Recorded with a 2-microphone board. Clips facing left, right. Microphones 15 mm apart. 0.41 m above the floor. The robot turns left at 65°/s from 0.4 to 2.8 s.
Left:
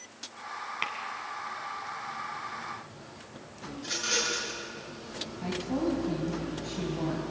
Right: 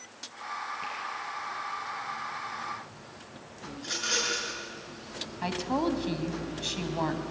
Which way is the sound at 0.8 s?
65° left (ahead or behind).